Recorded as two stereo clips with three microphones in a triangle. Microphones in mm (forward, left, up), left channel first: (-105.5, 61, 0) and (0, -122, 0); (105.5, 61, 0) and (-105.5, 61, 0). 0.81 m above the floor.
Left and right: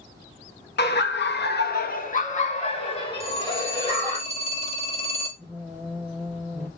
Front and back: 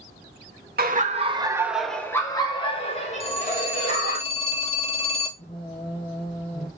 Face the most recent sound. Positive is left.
turn(degrees=40)